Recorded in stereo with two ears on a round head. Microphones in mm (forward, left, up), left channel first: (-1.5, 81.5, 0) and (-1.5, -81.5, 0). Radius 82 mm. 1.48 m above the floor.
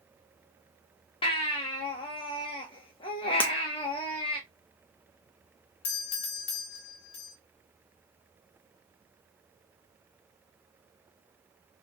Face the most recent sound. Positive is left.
turn(degrees=35)  # may be behind; listen again after turning